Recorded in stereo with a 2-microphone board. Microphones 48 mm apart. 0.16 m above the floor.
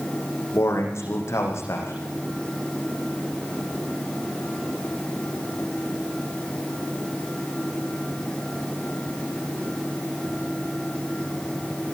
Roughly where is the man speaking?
Left.